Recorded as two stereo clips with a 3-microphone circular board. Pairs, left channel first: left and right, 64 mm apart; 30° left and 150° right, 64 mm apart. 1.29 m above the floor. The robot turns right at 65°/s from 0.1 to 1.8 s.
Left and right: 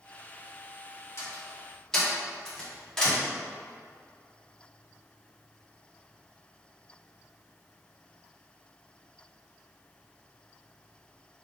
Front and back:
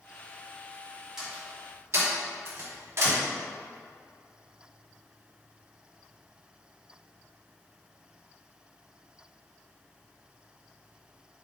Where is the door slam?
130° left, 2 m; by 3.2 s 170° left, 2 m.